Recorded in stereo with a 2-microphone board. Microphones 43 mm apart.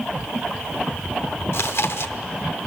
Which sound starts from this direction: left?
Chewing, at 1.5 s.